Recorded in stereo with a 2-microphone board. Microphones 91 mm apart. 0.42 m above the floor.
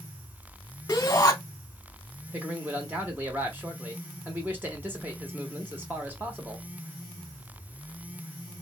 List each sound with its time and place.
0.9 s a shout: 35° left (ahead or behind), 0.9 m
2.3 s a man speaking: 20° right (ahead or behind), 1.0 m